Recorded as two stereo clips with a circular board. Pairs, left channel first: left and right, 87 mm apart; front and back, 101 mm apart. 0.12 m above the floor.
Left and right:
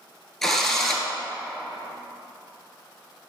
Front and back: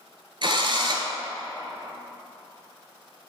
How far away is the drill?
About 0.9 m.